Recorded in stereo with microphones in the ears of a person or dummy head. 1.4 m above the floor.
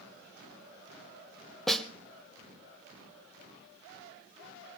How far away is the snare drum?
About 2.0 m.